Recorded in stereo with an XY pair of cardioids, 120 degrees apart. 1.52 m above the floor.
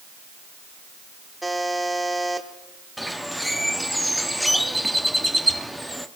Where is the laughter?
No laughter in this recording.